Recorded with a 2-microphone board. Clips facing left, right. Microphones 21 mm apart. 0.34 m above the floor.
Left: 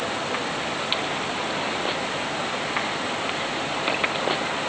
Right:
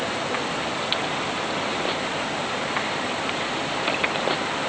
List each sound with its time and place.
Only background noise.